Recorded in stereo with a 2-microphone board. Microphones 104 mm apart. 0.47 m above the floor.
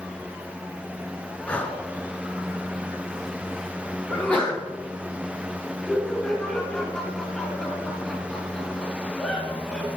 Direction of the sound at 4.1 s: 10° left (ahead or behind).